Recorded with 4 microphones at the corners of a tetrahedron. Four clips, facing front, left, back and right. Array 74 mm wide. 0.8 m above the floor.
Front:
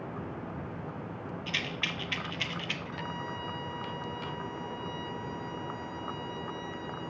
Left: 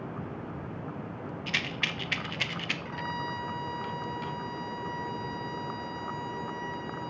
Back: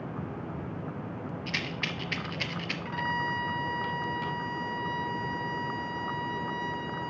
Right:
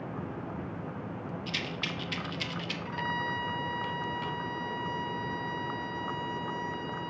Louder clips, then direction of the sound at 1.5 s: Left 6 dB, even; 115° left.